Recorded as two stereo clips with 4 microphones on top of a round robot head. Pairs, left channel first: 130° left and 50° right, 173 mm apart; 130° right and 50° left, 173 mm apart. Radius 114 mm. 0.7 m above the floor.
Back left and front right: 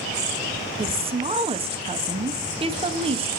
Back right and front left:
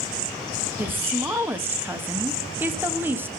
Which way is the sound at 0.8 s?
20° right.